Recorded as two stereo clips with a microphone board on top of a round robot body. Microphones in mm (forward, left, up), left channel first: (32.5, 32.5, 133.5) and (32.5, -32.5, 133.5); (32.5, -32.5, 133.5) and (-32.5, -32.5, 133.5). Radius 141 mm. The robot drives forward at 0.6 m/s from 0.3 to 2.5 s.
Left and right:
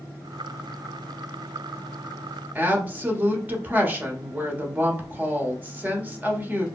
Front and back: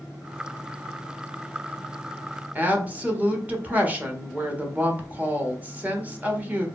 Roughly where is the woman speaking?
Behind right.